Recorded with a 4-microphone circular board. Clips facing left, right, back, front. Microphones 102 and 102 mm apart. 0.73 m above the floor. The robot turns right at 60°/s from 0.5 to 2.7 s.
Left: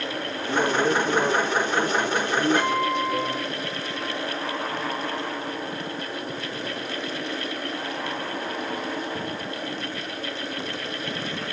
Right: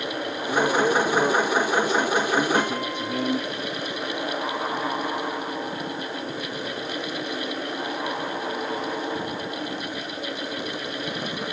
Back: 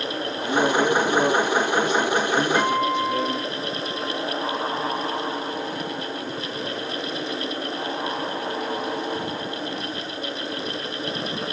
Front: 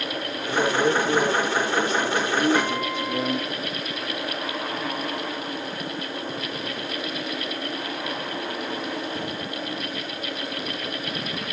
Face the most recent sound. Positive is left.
turn(degrees=-60)